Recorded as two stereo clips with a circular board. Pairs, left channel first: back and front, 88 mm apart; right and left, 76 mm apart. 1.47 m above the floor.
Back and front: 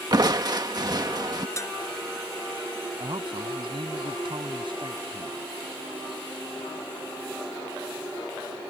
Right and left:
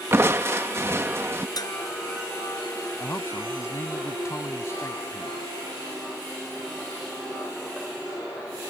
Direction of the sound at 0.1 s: 35° left.